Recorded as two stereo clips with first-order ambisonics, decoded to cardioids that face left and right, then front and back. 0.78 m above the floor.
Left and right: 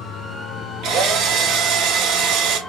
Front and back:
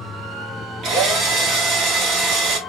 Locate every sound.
0.8 s a drill: 130° right, 1.4 m